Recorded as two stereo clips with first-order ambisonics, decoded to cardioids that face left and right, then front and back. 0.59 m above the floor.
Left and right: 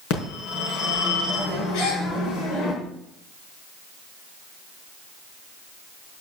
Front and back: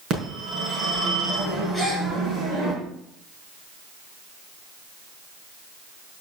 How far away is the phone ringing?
About 5 m.